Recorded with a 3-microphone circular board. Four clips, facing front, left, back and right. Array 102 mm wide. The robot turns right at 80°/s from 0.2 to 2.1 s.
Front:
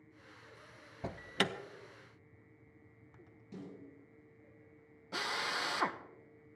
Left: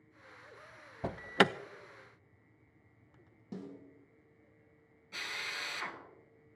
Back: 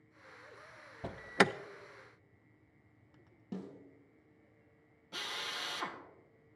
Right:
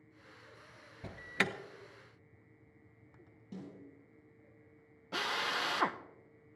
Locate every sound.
1.0 s an alarm: 85° left, 0.5 m; by 1.5 s 125° left, 0.5 m
3.5 s a snare drum: 155° left, 8 m
5.1 s a drill: 65° right, 0.9 m